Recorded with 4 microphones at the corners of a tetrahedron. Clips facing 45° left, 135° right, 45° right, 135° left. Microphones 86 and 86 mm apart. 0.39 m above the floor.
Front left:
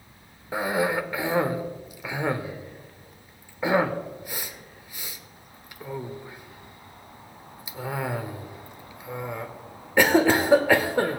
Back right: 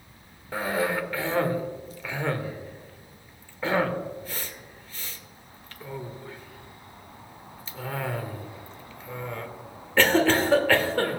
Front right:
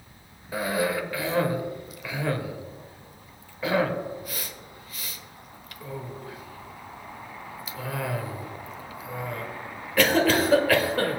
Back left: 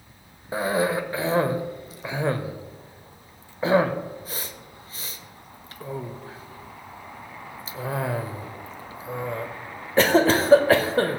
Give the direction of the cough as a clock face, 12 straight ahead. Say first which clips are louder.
Front left 2 dB, back left 3 dB; 8 o'clock.